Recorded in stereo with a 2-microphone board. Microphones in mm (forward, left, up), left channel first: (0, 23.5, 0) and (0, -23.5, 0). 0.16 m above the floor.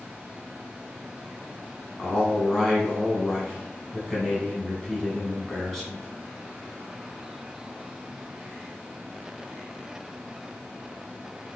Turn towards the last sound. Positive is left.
turn(degrees=5)  # may be behind; listen again after turning